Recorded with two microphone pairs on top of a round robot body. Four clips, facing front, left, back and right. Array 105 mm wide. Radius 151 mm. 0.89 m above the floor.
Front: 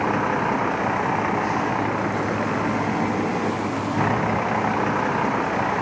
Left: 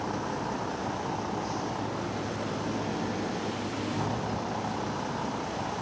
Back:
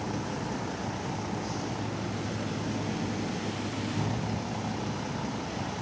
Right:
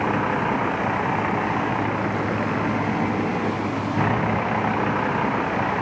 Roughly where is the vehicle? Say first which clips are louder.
Right 10 dB, front 12 dB; ahead right.